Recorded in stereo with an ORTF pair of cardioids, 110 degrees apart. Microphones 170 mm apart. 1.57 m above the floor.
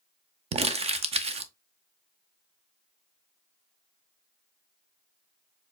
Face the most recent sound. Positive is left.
turn(degrees=-40)